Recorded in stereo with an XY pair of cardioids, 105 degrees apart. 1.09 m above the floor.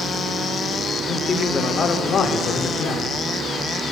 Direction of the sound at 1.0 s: 40° left.